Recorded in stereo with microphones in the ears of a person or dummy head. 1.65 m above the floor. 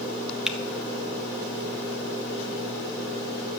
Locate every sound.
0.5 s typing on a keyboard: centre (ahead or behind), 0.8 m